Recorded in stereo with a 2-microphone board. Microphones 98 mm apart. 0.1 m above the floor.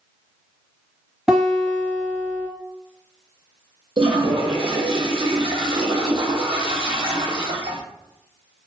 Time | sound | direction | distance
1.3 | a guitar | 5° right (ahead or behind) | 2.0 m
4.0 | a toilet flushing | 65° right (ahead or behind) | 0.8 m